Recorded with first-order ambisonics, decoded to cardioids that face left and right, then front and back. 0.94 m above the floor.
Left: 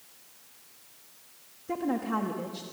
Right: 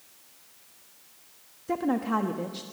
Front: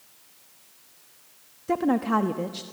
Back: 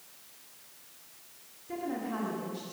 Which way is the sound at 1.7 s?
15° right.